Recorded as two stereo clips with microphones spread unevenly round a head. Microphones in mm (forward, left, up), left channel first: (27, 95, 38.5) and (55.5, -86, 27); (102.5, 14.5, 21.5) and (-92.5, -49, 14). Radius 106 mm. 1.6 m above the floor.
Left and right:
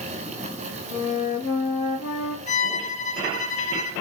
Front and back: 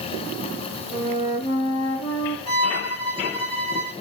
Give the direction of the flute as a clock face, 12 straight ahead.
10 o'clock.